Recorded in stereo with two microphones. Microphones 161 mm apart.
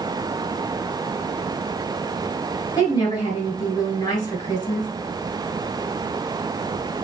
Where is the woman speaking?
25° left (ahead or behind), 1.5 m.